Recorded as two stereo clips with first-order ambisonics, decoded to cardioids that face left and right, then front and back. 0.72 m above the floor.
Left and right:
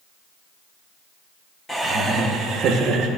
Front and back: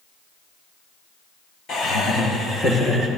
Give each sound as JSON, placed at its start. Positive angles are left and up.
{"t": 1.7, "sound": "laughter", "azimuth_deg": 15, "distance_m": 0.7}